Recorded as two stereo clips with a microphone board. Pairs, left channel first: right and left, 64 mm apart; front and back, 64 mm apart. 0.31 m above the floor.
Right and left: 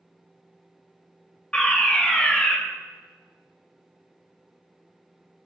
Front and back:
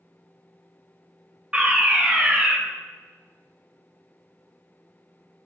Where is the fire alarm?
140° right, 1.9 m.